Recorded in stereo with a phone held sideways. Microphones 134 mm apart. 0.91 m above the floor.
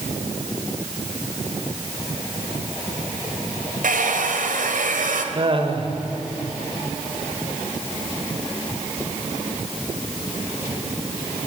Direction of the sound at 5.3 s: 40° right (ahead or behind).